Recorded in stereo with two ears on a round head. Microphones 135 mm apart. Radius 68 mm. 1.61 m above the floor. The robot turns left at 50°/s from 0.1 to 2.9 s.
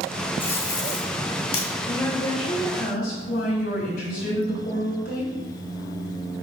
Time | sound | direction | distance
0.4 | tape being pulled | 15° left (ahead or behind) | 2.0 m
1.9 | a woman speaking | 160° left | 3 m